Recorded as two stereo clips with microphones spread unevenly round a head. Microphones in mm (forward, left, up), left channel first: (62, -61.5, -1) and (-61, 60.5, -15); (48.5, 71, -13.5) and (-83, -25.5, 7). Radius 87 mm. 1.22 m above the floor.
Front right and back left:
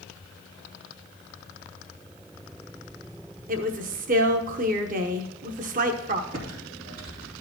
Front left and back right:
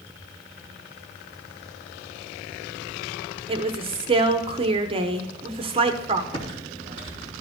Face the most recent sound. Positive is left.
turn(degrees=95)